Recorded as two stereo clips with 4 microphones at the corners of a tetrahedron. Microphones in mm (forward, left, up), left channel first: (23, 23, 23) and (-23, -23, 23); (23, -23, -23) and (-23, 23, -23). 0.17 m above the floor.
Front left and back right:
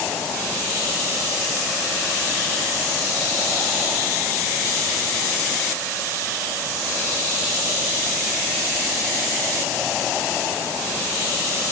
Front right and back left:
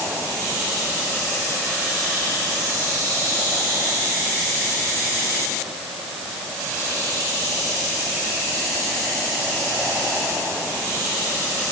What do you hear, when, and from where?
Only background noise.